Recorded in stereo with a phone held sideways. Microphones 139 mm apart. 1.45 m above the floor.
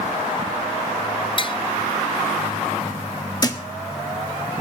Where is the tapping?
35° left (ahead or behind), 0.7 m.